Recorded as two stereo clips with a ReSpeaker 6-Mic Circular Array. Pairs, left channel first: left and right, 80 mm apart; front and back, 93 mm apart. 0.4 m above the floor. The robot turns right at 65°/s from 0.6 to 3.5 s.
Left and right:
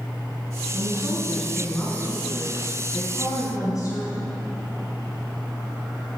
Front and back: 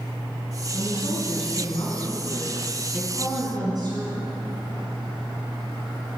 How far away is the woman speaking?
About 3.5 m.